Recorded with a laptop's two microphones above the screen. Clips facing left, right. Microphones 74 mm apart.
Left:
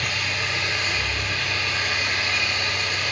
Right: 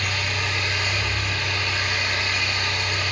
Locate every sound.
0.0 s an engine running: 50° right (ahead or behind), 1.6 m